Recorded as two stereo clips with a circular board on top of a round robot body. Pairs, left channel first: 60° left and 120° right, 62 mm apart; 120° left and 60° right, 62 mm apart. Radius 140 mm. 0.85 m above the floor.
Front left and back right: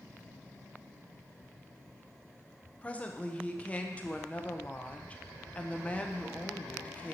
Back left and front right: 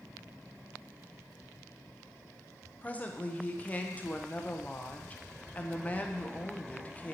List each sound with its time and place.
2.8 s a woman speaking: 95° left, 0.9 m